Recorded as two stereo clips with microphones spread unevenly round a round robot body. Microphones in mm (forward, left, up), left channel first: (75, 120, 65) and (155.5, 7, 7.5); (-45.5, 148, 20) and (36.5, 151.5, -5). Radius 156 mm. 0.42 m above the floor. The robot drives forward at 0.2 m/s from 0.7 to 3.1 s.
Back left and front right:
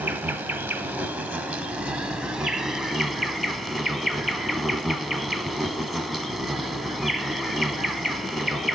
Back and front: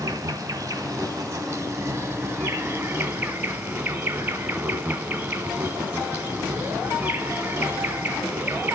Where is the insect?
10° right, 1.3 m; by 8.8 s 15° right, 1.0 m.